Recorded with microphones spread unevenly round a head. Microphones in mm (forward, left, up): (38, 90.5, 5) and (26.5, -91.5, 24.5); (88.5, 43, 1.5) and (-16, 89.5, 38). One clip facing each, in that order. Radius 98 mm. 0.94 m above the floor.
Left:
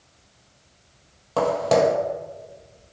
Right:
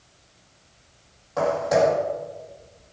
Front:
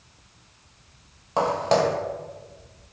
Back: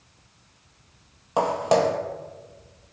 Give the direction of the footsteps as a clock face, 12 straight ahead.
9 o'clock.